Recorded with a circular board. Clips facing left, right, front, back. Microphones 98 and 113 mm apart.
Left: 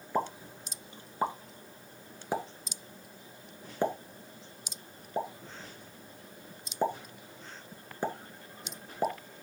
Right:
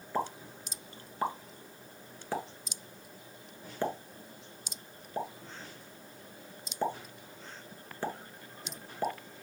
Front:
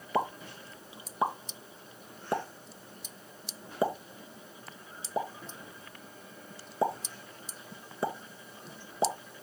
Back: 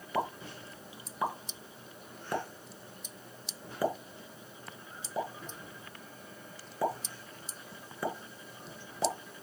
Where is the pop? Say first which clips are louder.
Left 2 dB, front 2 dB; 35° left, 1.4 m.